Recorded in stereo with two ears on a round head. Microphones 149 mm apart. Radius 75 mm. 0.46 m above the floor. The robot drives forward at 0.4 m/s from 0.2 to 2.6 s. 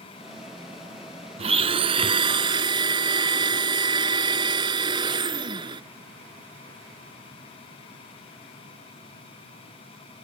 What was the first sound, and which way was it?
A blender, 35° right (ahead or behind).